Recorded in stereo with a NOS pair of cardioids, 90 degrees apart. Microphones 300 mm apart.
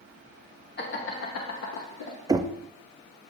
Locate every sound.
0.8 s laughter: 35° left, 1.2 m; by 2.2 s 75° left, 1.3 m
2.3 s knocking: 10° right, 0.5 m